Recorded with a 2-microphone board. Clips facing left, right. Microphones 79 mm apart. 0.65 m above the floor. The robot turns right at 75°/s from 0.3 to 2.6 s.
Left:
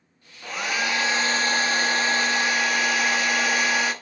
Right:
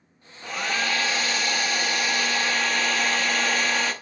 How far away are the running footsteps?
No running footsteps in this recording.